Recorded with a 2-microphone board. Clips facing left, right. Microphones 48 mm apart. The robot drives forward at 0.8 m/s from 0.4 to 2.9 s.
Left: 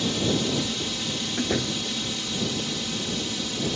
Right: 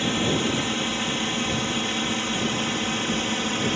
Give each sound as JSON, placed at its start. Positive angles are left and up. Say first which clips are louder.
{"t": 0.0, "sound": "a drone", "louder": "right 2 dB", "side_deg": -35}
{"t": 1.4, "sound": "a door slam", "louder": "right 1 dB", "side_deg": 55}